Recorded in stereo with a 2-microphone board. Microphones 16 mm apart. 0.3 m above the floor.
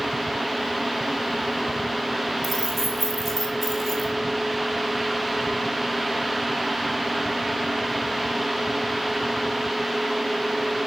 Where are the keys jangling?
5° right (ahead or behind), 1.8 m.